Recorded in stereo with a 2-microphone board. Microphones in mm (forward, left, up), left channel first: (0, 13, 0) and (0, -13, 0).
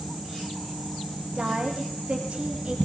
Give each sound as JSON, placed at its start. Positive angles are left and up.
{"t": 1.4, "sound": "a woman speaking", "side_deg": -55, "distance_m": 7.5}